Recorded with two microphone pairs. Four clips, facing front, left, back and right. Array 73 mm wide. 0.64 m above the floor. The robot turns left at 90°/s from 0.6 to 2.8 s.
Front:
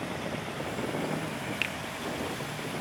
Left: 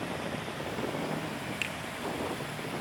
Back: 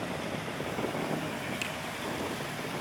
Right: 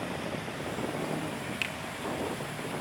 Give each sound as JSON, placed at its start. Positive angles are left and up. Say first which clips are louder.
{"t": 1.6, "sound": "a finger snap", "louder": "right 1 dB, front 2 dB", "azimuth_deg": 5, "distance_m": 1.2}